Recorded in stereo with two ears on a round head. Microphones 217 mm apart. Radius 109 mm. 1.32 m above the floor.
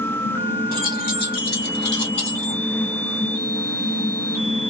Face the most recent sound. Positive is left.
turn(degrees=60)  # may be behind; listen again after turning